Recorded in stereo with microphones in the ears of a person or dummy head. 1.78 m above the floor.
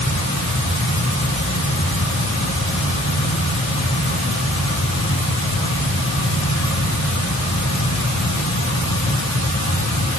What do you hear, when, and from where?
0.0 s a fan: 70° left (ahead or behind), 3 m